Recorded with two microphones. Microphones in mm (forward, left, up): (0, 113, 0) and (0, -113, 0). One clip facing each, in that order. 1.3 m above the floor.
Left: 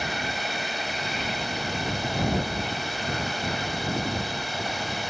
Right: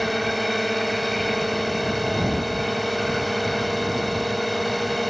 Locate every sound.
0.0 s a drone: 70° right (ahead or behind)